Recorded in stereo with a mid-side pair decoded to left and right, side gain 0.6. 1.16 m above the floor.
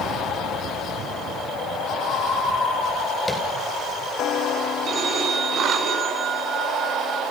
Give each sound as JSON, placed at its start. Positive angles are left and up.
{"t": 3.3, "sound": "tapping", "azimuth_deg": 5, "distance_m": 5.0}
{"t": 4.8, "sound": "a phone ringing", "azimuth_deg": -45, "distance_m": 8.0}